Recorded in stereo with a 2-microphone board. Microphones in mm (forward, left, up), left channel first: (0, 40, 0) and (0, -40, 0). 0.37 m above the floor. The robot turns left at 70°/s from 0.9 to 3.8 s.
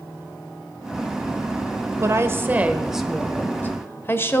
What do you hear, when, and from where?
2.0 s a woman speaking: 105° right, 1.2 m; by 4.4 s 130° left, 1.2 m